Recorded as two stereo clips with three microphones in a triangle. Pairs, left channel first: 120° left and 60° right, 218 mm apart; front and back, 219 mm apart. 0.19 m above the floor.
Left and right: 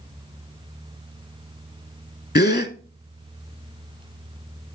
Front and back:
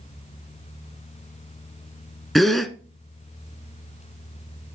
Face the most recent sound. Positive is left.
turn(degrees=90)